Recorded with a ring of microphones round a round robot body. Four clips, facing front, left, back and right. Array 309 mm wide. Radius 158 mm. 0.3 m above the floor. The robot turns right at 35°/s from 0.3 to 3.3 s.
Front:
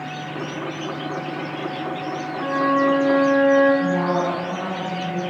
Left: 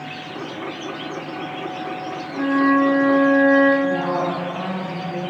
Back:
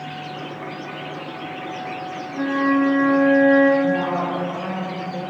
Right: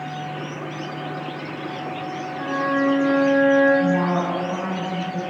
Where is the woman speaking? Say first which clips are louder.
Even, even; 80° right, 3.5 m.